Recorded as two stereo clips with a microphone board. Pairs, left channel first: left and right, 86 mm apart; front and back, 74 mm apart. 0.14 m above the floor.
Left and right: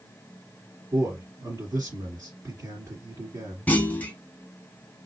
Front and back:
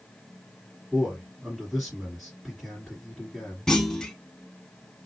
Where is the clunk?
65° left, 0.7 m.